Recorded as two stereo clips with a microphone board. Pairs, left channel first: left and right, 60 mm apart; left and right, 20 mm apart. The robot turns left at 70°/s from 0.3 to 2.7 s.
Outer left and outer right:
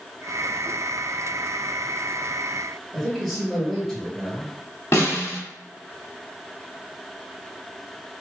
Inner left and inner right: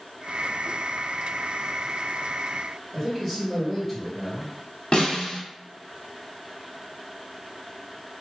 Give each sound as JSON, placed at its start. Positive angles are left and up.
{"t": 2.9, "sound": "a man speaking", "side_deg": 0, "distance_m": 1.9}
{"t": 4.9, "sound": "a snare drum", "side_deg": 50, "distance_m": 1.4}